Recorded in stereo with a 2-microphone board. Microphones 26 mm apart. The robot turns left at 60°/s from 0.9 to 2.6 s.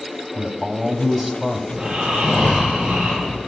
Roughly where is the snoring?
Ahead right.